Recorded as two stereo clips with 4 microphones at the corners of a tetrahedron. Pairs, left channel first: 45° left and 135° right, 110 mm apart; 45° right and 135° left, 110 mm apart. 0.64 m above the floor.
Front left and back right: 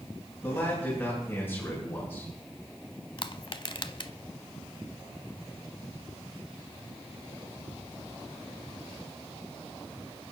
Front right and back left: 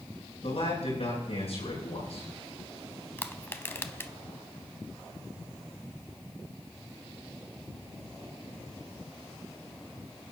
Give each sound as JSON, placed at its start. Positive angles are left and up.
{"t": 0.4, "sound": "a man speaking", "azimuth_deg": -25, "distance_m": 9.5}
{"t": 3.2, "sound": "crushing", "azimuth_deg": 20, "distance_m": 0.7}